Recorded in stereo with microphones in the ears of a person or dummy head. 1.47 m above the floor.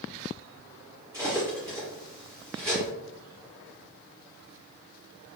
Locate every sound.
1.1 s cutlery clinking: 25° right (ahead or behind), 1.3 m